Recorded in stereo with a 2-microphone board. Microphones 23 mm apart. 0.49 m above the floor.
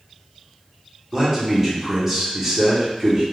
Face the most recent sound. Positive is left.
turn(degrees=-20)  # may be behind; listen again after turning